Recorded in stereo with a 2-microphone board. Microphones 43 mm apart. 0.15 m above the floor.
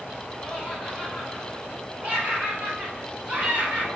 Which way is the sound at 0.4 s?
10° right (ahead or behind).